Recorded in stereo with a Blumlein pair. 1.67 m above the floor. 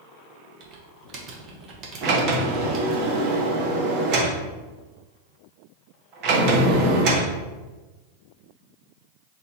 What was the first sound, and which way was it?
Typing on a keyboard, 30° right.